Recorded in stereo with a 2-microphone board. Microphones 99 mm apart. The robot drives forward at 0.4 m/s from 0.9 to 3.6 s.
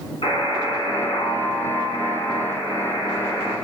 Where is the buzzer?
70° left (ahead or behind), 1.0 m; by 3.5 s 40° left (ahead or behind), 1.5 m.